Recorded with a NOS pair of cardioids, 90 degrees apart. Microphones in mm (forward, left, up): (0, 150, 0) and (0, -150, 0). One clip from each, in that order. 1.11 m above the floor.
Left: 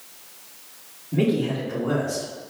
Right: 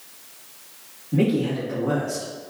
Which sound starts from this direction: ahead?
A man speaking, at 1.1 s.